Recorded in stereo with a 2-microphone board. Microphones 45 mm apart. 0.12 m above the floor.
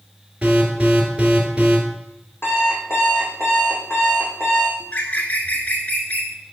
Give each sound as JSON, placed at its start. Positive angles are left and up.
{"t": 0.4, "sound": "an alarm", "side_deg": -20, "distance_m": 2.0}
{"t": 2.4, "sound": "an alarm clock", "side_deg": 65, "distance_m": 3.0}
{"t": 4.8, "sound": "a bird", "side_deg": 40, "distance_m": 1.0}